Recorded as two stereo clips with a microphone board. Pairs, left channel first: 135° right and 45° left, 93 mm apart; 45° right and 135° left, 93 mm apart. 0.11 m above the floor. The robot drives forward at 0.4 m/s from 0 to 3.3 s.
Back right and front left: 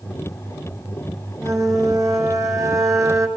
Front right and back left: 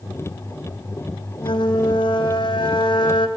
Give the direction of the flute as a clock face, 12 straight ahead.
12 o'clock.